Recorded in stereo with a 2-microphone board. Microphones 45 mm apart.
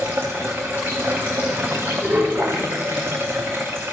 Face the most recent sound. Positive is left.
turn(degrees=-55)  # may be behind; listen again after turning